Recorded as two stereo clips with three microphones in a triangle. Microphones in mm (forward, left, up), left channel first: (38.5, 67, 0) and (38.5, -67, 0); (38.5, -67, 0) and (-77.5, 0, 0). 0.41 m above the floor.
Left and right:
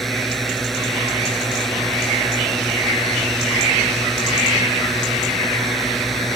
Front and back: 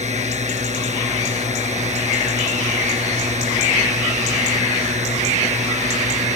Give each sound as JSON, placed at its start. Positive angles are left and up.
{"t": 0.0, "sound": "a drone", "azimuth_deg": 180}